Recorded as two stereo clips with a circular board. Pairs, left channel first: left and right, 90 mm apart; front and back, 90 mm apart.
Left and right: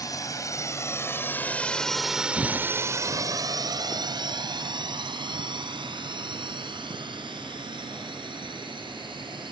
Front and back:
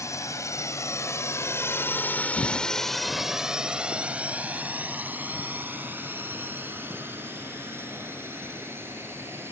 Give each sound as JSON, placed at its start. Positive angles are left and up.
{"t": 0.0, "sound": "a drone", "azimuth_deg": 50}
{"t": 2.4, "sound": "footsteps", "azimuth_deg": 10}